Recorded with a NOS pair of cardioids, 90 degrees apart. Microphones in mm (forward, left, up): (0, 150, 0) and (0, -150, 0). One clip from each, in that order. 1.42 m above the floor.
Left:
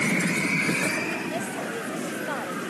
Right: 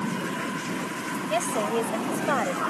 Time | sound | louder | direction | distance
1.3 | a woman speaking | right 5 dB | 55° right | ?